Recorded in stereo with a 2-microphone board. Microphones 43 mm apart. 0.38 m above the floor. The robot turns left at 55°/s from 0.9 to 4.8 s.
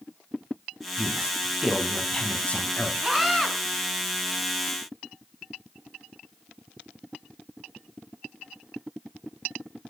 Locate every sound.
1.0 s a woman speaking: 135° right, 3 m; by 2.9 s 120° left, 3 m
3.0 s a scream: 5° right (ahead or behind), 3.5 m; by 3.5 s 20° left (ahead or behind), 3.5 m